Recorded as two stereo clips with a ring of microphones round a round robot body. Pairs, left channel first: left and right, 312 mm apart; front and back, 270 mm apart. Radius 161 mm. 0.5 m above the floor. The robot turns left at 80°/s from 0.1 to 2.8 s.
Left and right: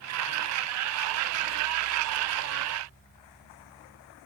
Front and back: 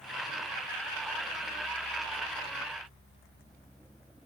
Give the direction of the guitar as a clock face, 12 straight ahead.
I don't hear a guitar.